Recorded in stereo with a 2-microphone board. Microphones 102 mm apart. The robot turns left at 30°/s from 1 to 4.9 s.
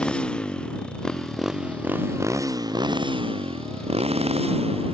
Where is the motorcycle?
10° left; by 4.9 s 110° right.